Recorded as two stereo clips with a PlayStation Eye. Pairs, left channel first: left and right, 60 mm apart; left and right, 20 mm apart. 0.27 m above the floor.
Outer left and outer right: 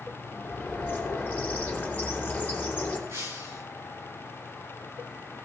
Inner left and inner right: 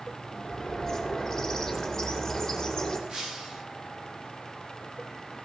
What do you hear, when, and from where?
0.3 s a bird: 25° left (ahead or behind), 4.5 m
3.1 s breaking glass: 55° right (ahead or behind), 9.5 m